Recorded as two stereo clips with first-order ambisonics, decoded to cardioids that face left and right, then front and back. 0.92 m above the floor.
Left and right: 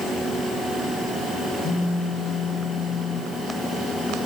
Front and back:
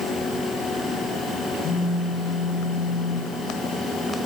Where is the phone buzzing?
50° left, 5.5 m.